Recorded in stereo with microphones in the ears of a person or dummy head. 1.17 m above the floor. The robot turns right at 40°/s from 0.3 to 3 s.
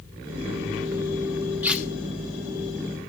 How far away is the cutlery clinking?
About 0.6 m.